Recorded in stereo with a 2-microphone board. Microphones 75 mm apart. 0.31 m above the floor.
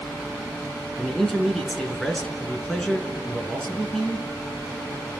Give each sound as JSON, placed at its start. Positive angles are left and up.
{"t": 1.0, "sound": "a man speaking", "side_deg": 5, "distance_m": 3.5}